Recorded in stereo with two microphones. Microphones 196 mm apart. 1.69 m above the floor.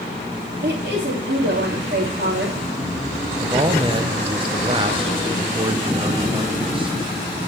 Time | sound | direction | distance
0.6 | a woman speaking | 55° right (ahead or behind) | 3 m
3.4 | a man speaking | 25° right (ahead or behind) | 0.7 m